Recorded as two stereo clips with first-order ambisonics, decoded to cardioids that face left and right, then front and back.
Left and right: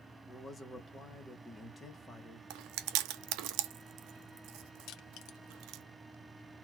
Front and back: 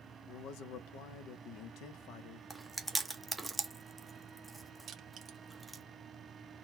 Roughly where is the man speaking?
Ahead.